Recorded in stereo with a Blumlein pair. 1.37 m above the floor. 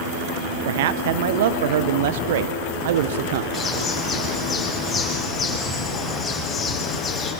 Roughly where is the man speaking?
Ahead right.